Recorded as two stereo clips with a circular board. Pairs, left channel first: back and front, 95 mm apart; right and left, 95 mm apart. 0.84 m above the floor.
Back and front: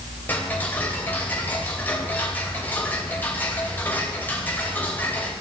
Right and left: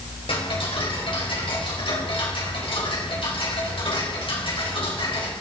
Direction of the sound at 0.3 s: 110° right.